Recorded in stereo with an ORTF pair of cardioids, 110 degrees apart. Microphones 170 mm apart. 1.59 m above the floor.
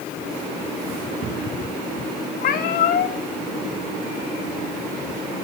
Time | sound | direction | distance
2.4 | a cat meowing | 65° left | 2.5 m